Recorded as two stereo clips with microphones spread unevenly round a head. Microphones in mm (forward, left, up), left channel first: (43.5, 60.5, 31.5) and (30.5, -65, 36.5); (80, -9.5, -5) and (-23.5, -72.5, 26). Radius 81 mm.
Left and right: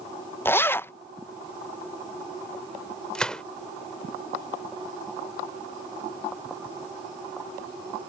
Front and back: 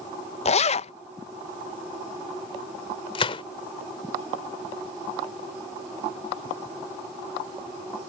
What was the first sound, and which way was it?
A zipper, 10° left.